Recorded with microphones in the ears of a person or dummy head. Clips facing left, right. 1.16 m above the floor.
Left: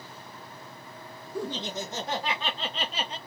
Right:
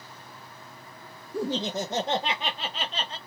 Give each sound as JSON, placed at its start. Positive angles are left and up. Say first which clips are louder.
{"t": 1.3, "sound": "laughter", "louder": "right 4 dB", "side_deg": -45, "distance_m": 1.1}